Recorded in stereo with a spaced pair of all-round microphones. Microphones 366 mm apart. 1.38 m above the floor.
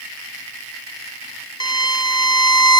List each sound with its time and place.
1.6 s a violin: 45° right (ahead or behind)